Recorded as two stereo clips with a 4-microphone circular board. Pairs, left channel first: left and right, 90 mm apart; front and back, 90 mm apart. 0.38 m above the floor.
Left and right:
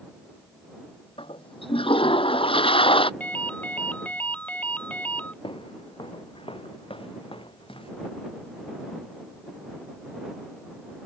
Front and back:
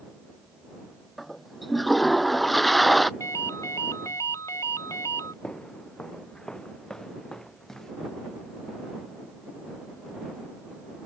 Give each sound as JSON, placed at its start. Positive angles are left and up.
{"t": 1.2, "sound": "a toilet flushing", "azimuth_deg": 90}
{"t": 3.2, "sound": "a ringtone", "azimuth_deg": 25}
{"t": 5.4, "sound": "footsteps", "azimuth_deg": 80}